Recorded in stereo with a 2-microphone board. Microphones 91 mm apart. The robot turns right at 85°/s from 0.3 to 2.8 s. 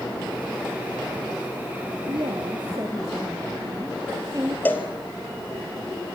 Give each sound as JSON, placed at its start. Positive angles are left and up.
{"t": 2.1, "sound": "a woman speaking", "azimuth_deg": -110, "distance_m": 2.0}
{"t": 4.7, "sound": "a cowbell", "side_deg": 20, "distance_m": 2.5}